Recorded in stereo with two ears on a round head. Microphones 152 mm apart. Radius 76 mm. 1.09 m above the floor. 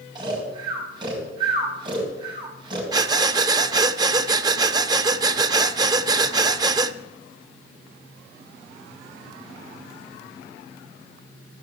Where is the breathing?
25° right (ahead or behind), 0.6 m.